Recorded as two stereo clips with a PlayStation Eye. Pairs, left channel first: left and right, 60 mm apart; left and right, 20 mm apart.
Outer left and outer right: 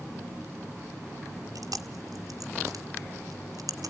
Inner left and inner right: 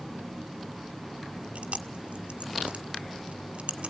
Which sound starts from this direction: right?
Chewing, at 1.6 s.